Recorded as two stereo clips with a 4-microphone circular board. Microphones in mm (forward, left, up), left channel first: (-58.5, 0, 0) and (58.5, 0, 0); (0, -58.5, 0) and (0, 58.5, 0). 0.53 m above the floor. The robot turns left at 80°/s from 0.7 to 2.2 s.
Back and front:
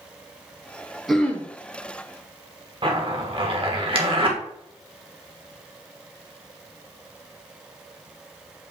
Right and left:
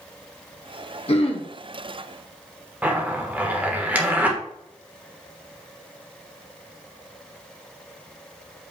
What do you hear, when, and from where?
1.1 s throat clearing: 90° right, 1.1 m; by 1.5 s 120° right, 1.1 m
2.8 s a zipper: 20° left, 1.4 m